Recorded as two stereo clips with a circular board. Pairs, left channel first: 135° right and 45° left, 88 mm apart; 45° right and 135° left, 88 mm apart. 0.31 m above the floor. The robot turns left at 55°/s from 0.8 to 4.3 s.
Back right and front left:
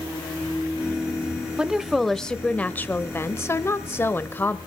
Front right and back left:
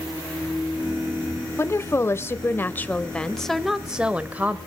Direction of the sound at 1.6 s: 25° right.